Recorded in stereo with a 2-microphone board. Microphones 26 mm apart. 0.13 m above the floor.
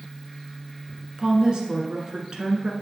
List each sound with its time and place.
1.2 s a woman speaking: 30° right (ahead or behind), 1.3 m